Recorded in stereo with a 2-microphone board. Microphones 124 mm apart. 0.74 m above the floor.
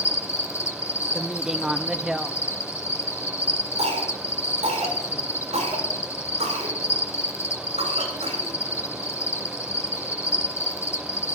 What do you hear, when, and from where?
0.0 s an insect: 20° left (ahead or behind), 1.2 m
1.1 s a woman speaking: 5° right (ahead or behind), 0.7 m
3.8 s a cough: 65° right (ahead or behind), 7 m